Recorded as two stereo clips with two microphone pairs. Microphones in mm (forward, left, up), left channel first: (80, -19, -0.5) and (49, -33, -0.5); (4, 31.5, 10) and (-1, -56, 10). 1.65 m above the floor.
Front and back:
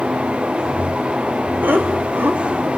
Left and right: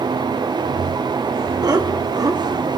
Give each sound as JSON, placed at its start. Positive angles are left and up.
{"t": 1.6, "sound": "laughter", "azimuth_deg": -135, "distance_m": 3.5}